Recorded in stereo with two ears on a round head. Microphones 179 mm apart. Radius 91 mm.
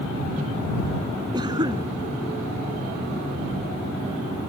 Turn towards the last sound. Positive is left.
turn(degrees=-20)  # may be behind; listen again after turning